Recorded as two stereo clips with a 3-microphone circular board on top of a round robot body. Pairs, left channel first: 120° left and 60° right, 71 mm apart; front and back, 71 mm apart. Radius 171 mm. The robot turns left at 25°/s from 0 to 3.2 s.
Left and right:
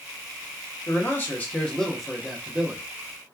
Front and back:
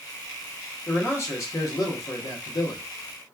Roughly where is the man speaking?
Ahead left.